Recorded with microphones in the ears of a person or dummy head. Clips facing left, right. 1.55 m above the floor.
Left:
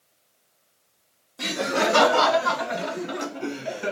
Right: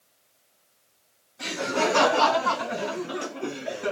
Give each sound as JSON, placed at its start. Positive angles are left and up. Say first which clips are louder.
{"t": 1.4, "sound": "laughter", "louder": "left 2 dB", "side_deg": 75, "distance_m": 1.3}